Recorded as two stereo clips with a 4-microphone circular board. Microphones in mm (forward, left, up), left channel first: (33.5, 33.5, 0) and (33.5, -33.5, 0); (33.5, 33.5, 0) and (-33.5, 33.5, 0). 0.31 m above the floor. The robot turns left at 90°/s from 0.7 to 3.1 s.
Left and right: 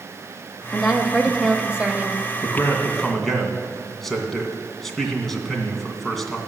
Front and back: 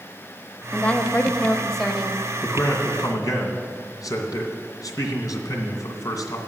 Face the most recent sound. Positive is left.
turn(degrees=5)